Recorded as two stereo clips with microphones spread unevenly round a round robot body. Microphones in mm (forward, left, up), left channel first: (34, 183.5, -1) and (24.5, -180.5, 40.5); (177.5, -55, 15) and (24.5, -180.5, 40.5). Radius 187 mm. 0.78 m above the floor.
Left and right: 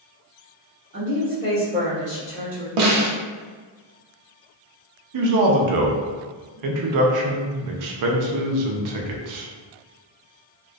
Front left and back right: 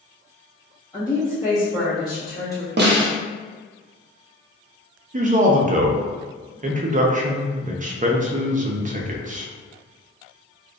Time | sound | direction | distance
0.9 | a woman speaking | 35° right | 1.4 m
2.8 | a snare drum | 100° right | 0.7 m
5.1 | a man speaking | 95° right | 0.5 m